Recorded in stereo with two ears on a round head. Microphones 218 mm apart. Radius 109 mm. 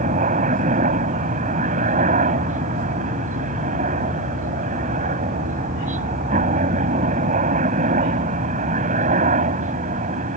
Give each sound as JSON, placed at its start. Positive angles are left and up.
{"t": 0.0, "sound": "a helicopter", "side_deg": -30}